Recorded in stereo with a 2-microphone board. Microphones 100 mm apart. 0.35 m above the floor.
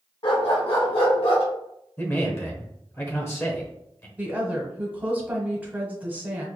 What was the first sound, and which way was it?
A dog barking, 60° left (ahead or behind).